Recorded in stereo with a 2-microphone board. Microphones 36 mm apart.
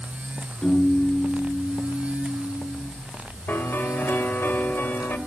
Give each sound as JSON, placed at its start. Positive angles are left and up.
{"t": 0.6, "sound": "a piano", "side_deg": 20, "distance_m": 7.5}
{"t": 3.5, "sound": "a piano", "side_deg": 60, "distance_m": 2.5}